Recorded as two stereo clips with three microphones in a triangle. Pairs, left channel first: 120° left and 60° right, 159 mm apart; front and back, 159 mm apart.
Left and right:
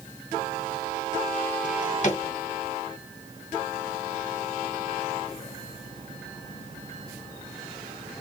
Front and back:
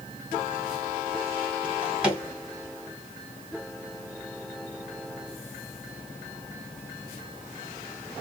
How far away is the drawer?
About 1.7 m.